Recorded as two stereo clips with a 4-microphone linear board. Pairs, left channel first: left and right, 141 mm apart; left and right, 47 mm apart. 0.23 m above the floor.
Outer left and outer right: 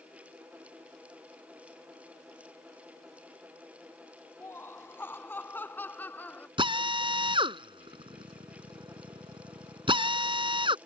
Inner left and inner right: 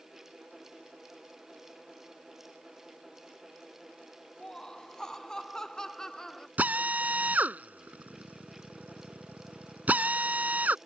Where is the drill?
35° right (ahead or behind).